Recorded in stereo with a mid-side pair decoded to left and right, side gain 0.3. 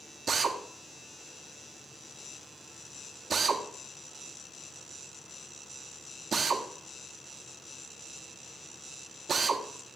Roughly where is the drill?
Ahead right.